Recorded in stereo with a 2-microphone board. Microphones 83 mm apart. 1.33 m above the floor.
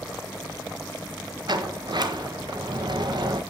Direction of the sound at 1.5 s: 60° right (ahead or behind).